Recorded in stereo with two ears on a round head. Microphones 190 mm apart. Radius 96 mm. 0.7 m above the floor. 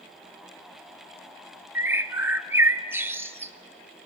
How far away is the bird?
About 1.0 m.